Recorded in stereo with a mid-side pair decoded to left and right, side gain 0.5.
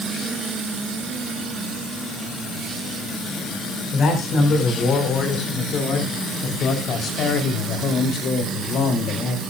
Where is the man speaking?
55° left, 6 m; by 9.4 s 70° left, 3 m.